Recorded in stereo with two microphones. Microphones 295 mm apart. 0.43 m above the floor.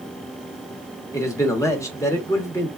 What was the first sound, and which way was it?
A man speaking, 10° left (ahead or behind).